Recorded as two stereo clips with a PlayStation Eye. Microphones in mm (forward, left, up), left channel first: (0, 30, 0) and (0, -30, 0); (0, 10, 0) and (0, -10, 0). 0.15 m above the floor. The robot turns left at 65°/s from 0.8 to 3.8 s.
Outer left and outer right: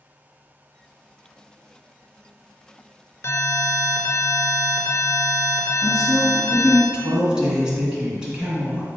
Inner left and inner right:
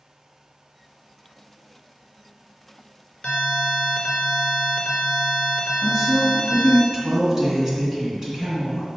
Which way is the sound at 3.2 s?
95° left.